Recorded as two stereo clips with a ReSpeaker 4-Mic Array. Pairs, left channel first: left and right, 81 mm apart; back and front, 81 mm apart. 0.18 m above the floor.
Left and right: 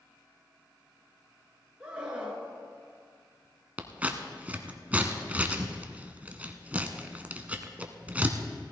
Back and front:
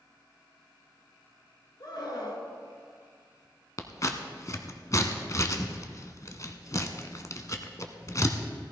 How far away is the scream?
About 2.5 m.